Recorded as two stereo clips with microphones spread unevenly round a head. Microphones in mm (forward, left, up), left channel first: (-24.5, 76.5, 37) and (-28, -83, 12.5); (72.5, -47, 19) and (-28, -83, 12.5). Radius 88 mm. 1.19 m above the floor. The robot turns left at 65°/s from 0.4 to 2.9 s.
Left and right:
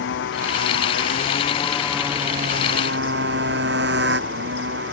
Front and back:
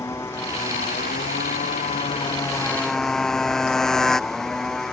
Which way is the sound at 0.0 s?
95° left.